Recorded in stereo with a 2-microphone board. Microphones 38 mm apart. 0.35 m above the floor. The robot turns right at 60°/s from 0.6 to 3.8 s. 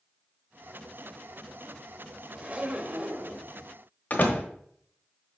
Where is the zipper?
135° right, 0.9 m; by 3.5 s 65° right, 0.9 m.